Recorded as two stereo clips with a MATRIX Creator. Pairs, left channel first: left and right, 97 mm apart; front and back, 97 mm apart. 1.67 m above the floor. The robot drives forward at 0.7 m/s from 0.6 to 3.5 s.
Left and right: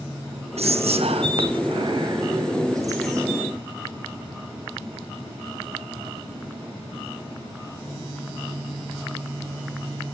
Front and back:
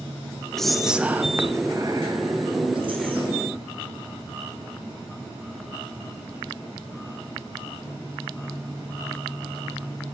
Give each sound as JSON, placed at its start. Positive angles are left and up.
{"t": 0.6, "sound": "whispering", "azimuth_deg": -85, "distance_m": 1.1}